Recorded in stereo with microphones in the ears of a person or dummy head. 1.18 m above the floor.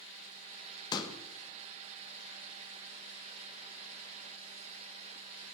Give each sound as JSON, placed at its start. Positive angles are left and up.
{"t": 0.9, "sound": "a pop", "side_deg": 30, "distance_m": 1.4}